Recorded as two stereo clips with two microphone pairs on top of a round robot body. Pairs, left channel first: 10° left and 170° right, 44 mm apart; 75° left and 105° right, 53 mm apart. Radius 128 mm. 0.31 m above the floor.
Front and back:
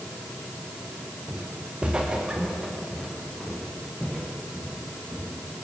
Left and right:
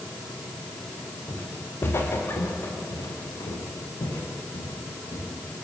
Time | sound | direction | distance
1.3 | footsteps | 130° left | 4 m